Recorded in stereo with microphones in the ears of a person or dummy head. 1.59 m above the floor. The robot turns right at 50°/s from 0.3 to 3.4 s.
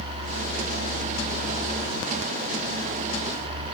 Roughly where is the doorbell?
I don't hear a doorbell.